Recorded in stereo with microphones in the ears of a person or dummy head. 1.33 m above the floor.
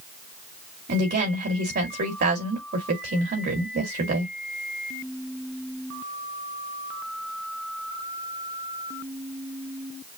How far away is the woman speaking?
About 2 m.